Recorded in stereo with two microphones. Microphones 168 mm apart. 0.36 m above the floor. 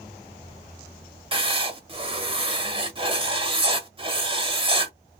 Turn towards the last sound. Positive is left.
turn(degrees=-30)  # may be behind; listen again after turning